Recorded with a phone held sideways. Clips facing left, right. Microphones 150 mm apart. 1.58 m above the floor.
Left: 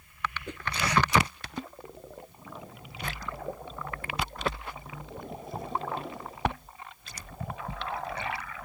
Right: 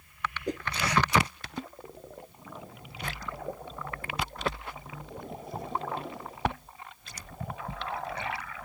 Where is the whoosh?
35° right (ahead or behind).